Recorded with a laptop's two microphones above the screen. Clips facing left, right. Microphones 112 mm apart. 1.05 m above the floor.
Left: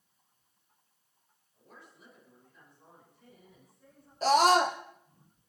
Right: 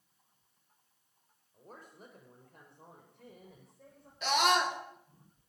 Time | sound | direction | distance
1.5 | a woman speaking | 40° right (ahead or behind) | 3.5 m
4.2 | a scream | 35° left (ahead or behind) | 1.0 m